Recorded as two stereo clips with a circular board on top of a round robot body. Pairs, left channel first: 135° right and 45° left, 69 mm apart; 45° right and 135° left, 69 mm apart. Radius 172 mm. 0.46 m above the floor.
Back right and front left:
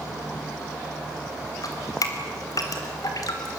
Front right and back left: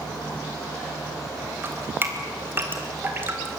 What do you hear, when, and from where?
1.6 s dripping: 165° right, 3.5 m